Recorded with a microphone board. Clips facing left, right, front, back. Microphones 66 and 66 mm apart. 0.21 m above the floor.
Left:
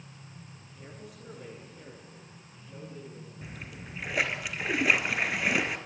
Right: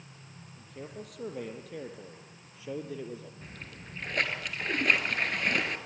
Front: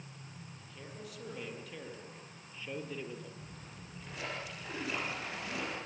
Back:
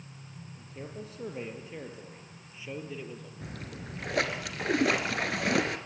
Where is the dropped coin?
I don't hear a dropped coin.